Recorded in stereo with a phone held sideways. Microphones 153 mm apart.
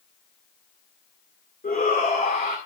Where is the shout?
80° left, 2 m.